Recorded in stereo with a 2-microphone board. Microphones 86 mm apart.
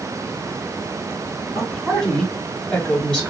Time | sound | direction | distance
1.6 | a woman speaking | 5° left (ahead or behind) | 3 m